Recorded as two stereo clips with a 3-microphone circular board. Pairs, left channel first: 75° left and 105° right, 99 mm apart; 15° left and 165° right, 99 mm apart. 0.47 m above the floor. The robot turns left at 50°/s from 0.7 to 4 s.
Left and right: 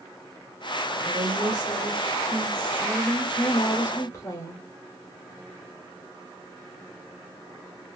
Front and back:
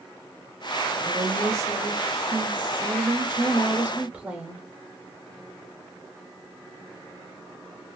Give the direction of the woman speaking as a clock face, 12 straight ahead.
3 o'clock.